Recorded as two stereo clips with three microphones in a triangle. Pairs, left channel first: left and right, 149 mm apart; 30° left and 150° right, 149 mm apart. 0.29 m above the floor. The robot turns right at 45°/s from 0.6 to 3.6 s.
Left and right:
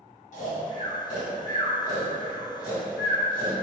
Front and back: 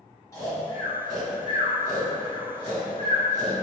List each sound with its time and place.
0.3 s snoring: 95° left, 1.4 m; by 3.5 s 135° right, 1.4 m